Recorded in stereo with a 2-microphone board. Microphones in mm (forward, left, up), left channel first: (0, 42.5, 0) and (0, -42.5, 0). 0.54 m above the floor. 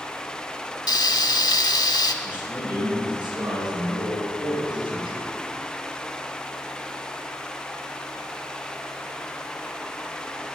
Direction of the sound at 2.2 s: 65° right (ahead or behind).